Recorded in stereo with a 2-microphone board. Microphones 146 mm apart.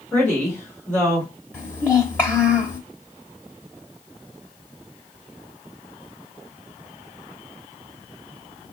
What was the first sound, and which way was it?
A woman speaking, 15° left (ahead or behind).